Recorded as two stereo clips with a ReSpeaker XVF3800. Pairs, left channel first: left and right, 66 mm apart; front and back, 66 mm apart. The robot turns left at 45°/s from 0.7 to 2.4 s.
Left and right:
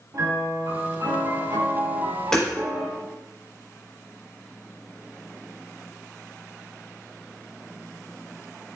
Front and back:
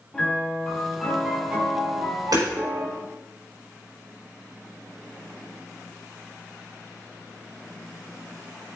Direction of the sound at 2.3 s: 170° left.